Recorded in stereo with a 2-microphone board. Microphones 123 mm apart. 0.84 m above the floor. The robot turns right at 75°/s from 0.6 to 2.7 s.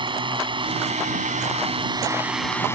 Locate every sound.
0.0 s a drone: 140° right; by 2.7 s 20° left